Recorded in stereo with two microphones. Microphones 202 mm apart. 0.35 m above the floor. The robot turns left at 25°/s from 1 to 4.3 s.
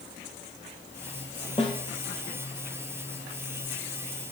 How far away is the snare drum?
About 2 m.